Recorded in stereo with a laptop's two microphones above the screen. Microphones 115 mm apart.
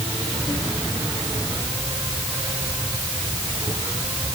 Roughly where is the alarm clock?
No alarm clock in this recording.